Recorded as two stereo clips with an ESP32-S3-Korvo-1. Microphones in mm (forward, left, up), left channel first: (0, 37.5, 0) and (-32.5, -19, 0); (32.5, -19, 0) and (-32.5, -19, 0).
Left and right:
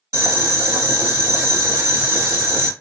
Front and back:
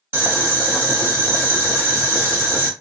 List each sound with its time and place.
0.1 s boiling: 135° right, 1.8 m